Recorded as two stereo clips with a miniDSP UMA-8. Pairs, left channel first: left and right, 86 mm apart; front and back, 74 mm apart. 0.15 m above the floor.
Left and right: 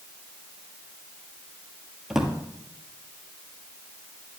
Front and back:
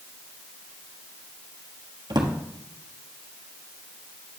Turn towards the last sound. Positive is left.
turn(degrees=-175)